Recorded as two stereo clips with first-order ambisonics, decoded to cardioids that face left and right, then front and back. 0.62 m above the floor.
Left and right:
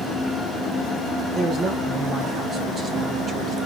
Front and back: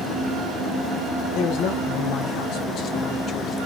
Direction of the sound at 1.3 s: 25° right.